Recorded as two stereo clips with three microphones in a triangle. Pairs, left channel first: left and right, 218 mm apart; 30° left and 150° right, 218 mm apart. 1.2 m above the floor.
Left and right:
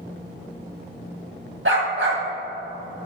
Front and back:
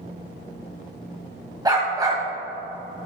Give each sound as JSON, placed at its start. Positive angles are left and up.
{"t": 1.6, "sound": "a dog barking", "azimuth_deg": -80, "distance_m": 2.5}